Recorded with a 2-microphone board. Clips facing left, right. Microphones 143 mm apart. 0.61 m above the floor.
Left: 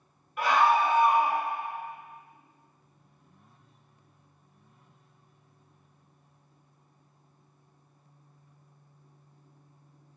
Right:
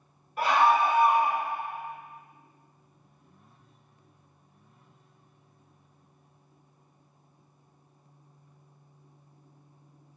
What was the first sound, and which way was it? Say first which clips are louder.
A scream: right 1 dB; 35° right (ahead or behind).